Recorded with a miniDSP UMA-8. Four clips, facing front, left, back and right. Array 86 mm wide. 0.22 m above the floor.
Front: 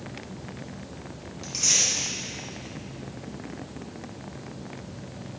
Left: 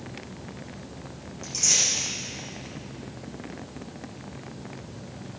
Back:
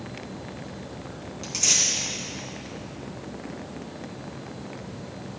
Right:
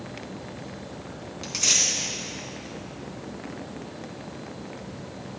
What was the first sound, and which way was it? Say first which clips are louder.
Tearing paper: right 1 dB, back 1 dB; 105° right.